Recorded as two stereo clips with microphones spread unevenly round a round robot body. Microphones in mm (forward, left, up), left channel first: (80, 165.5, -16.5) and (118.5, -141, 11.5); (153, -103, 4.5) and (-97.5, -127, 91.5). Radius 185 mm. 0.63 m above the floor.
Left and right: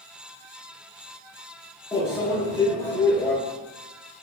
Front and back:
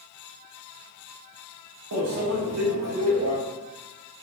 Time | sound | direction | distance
1.9 | a microwave | 170° left | 0.8 m